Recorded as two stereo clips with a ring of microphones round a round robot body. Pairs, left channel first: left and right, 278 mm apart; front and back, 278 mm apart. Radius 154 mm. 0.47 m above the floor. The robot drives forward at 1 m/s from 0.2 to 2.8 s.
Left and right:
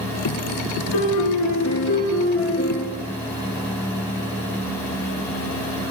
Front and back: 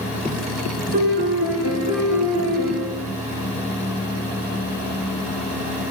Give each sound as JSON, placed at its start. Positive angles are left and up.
{"t": 0.9, "sound": "a piano", "azimuth_deg": 115, "distance_m": 1.4}